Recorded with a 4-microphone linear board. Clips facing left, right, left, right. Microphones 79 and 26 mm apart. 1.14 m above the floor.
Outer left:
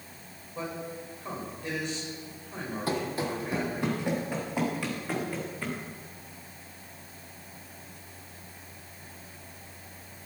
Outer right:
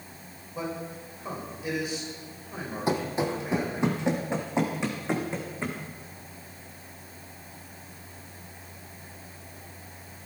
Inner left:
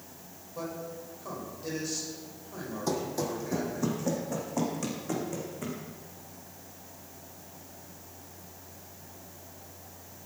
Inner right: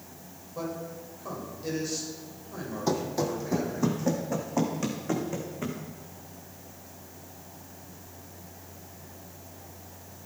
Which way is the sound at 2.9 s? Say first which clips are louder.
Outer right 4 dB, inner right 3 dB; 20° right (ahead or behind).